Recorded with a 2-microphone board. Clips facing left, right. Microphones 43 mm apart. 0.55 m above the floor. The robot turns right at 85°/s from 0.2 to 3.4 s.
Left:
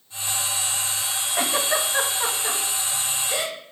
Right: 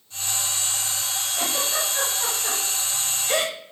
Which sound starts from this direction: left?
A giggle, at 1.4 s.